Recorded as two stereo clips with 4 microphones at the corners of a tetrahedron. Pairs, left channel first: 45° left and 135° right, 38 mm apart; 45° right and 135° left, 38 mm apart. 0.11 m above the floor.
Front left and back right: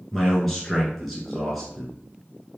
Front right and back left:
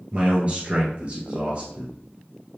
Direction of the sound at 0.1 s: 130° left.